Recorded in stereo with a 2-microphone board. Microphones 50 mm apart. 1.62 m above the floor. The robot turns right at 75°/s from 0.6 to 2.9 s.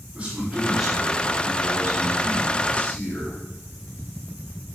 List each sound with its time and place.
0.1 s a man speaking: 25° right, 5.5 m; by 3.4 s 150° left, 5.5 m